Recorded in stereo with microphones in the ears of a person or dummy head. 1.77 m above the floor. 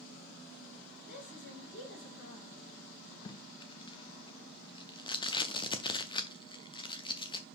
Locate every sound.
1.0 s a woman speaking: 55° left (ahead or behind), 2 m; by 2.6 s 65° left (ahead or behind), 3.5 m
3.2 s tape being pulled: 25° left (ahead or behind), 0.5 m